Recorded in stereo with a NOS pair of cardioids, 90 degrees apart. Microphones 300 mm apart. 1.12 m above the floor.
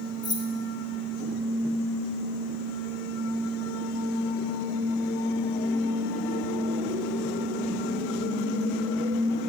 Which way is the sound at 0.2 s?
15° left.